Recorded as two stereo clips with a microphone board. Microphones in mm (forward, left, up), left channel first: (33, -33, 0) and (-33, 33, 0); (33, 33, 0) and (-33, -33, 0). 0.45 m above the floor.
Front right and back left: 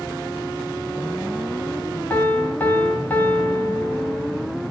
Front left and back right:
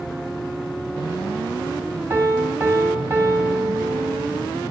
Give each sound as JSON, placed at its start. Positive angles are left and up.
{"t": 2.1, "sound": "a piano", "azimuth_deg": -100, "distance_m": 0.7}